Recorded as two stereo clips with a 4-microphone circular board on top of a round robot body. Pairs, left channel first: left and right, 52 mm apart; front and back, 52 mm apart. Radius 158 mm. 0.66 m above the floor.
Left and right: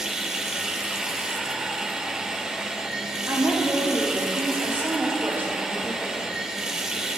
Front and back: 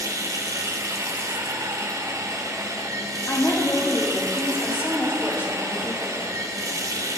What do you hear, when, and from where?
0.0 s running water: 170° right, 1.3 m
3.3 s a woman speaking: 40° right, 6 m